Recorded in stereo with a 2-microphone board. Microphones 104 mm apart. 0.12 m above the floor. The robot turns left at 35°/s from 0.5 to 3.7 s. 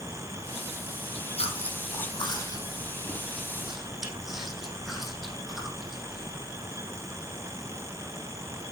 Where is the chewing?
75° left (ahead or behind), 4 m; by 6.7 s 5° right (ahead or behind), 4 m.